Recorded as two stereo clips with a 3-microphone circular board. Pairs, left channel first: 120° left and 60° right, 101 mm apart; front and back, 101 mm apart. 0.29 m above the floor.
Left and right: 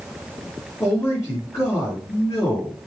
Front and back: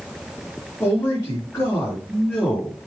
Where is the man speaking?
70° left, 5 m.